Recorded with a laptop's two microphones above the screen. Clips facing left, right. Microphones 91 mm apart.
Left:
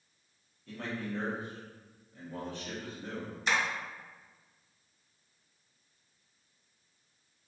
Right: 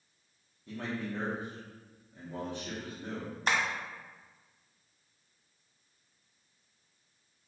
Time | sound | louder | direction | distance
0.7 | a man speaking | right 1 dB | 15° right (ahead or behind) | 0.8 m
3.5 | tapping | even | 45° right (ahead or behind) | 0.9 m